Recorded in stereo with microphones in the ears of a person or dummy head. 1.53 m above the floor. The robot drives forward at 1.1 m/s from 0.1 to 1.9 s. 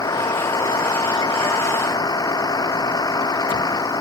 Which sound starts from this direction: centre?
A vehicle, at 0.0 s.